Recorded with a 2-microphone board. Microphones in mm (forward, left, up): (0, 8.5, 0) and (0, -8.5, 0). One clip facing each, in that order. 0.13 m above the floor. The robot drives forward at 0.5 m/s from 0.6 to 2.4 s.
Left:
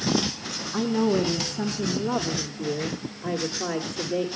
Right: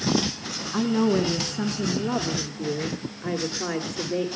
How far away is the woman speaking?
About 1.1 m.